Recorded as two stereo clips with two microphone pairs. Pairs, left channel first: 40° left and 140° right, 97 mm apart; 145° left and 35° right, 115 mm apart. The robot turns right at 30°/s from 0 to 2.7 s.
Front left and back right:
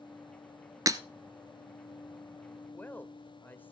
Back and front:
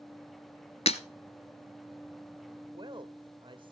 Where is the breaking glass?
165° left, 0.8 m; by 1.0 s 170° left, 0.8 m.